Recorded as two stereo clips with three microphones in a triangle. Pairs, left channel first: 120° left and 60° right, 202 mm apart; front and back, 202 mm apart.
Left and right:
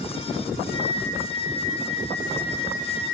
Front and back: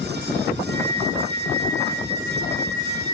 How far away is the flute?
About 4.5 m.